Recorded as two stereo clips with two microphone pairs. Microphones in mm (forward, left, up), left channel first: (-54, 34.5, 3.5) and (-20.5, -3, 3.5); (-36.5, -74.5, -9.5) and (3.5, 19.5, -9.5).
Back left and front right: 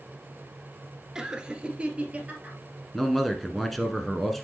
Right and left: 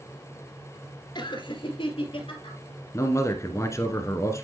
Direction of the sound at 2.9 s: 145° right.